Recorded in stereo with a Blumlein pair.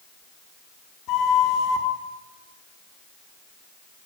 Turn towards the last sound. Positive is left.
turn(degrees=35)